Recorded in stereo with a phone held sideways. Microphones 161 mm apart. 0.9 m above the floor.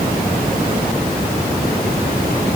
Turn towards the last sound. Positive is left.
No sound to turn to.